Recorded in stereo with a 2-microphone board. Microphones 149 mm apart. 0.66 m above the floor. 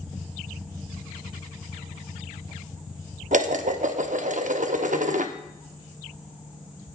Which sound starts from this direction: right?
Dishes clattering, at 3.3 s.